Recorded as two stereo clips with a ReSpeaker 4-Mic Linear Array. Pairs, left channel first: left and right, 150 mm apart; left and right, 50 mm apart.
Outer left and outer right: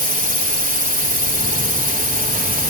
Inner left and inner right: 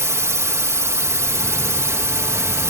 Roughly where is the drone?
Right.